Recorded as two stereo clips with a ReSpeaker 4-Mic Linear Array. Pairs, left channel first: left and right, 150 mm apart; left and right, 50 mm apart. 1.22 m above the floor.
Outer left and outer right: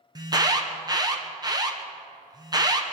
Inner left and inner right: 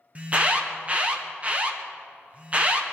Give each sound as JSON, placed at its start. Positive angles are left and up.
{"t": 0.1, "sound": "an alarm", "side_deg": -25, "distance_m": 1.2}